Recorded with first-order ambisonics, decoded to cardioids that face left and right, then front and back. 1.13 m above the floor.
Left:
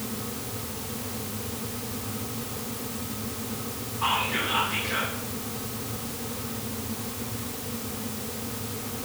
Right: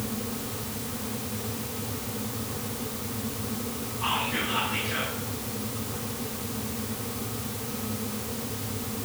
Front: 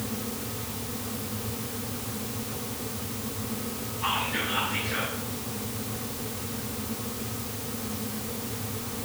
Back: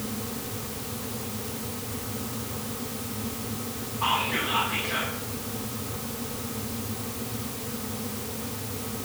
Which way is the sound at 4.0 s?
160° left.